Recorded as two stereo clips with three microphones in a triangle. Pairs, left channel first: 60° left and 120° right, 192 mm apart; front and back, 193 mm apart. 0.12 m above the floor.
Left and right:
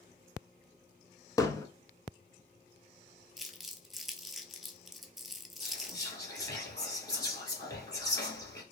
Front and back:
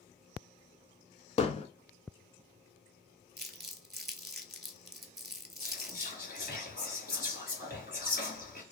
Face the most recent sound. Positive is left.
turn(degrees=-5)